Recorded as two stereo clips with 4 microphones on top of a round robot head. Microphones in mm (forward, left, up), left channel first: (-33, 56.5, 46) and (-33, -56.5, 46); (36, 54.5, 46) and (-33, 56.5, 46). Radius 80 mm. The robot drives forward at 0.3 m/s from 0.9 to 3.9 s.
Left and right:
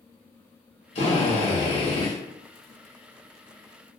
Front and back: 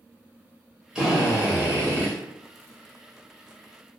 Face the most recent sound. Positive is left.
turn(degrees=150)